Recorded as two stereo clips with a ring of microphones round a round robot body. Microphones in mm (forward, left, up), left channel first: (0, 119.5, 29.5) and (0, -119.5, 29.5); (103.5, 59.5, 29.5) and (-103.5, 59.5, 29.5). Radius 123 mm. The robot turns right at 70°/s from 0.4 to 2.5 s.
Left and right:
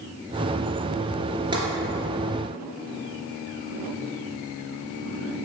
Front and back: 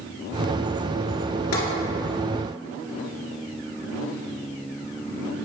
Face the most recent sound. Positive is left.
turn(degrees=50)